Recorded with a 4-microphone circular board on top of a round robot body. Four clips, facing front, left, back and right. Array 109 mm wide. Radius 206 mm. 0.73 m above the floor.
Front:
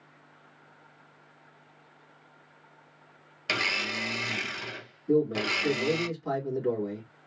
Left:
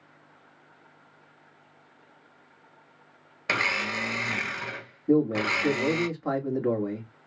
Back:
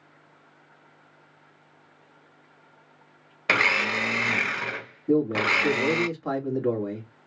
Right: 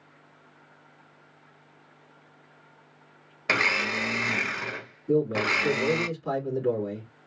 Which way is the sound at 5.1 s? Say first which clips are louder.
Left 1 dB, back 3 dB; 130° left.